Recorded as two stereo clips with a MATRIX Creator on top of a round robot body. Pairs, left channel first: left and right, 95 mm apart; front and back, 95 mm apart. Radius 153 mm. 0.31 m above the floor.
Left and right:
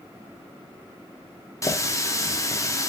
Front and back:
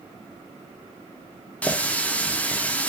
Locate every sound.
1.6 s a running tap: 65° left, 0.8 m